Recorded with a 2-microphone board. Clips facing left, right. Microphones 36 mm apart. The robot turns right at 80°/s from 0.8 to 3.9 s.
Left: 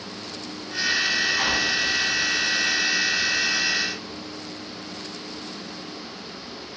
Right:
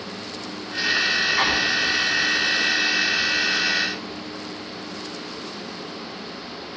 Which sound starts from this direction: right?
An explosion, at 1.4 s.